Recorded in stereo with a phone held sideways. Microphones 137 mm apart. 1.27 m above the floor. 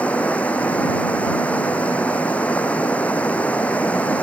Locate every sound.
0.0 s running water: 10° left (ahead or behind)